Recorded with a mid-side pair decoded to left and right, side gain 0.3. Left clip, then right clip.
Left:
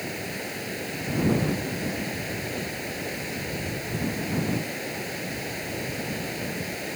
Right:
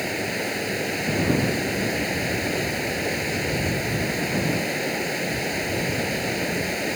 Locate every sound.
0.0 s running water: 65° right